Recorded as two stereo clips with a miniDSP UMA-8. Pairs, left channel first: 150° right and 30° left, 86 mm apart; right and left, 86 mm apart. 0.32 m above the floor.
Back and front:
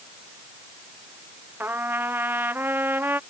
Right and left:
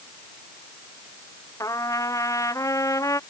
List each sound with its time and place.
1.6 s a trumpet: 35° right